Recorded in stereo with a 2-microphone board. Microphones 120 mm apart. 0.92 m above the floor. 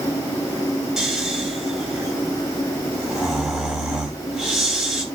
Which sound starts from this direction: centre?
Snoring, at 1.0 s.